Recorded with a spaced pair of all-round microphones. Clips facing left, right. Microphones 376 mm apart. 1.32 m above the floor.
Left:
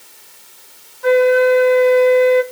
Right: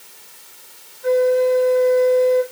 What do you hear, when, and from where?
1.0 s a flute: 80° left, 1.0 m